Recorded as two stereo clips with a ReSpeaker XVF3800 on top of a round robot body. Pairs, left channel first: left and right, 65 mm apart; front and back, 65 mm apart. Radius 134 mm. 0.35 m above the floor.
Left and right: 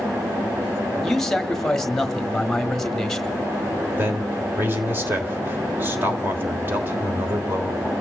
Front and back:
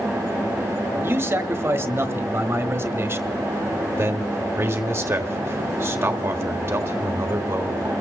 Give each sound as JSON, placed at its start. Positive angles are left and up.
{"t": 1.0, "sound": "a man speaking", "azimuth_deg": 170, "distance_m": 1.4}
{"t": 4.0, "sound": "a man speaking", "azimuth_deg": -140, "distance_m": 1.5}